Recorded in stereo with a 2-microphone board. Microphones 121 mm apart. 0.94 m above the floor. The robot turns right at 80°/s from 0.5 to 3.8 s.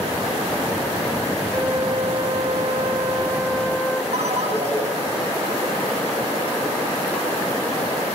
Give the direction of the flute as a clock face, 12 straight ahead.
6 o'clock.